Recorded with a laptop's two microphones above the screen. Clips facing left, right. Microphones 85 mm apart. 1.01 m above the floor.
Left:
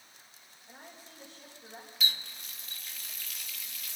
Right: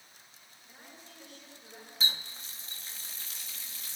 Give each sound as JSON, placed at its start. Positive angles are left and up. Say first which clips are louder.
{"t": 0.7, "sound": "a woman speaking", "louder": "left 2 dB", "side_deg": 30, "distance_m": 5.0}
{"t": 2.0, "sound": "a running tap", "louder": "even", "side_deg": -30, "distance_m": 0.8}